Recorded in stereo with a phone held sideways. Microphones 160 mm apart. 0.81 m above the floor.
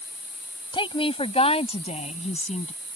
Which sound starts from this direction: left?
A woman speaking, at 0.7 s.